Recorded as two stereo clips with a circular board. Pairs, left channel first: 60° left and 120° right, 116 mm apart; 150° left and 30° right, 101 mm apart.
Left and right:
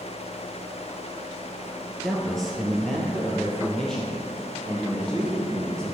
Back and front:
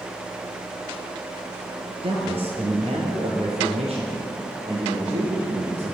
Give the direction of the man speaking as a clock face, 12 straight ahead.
1 o'clock.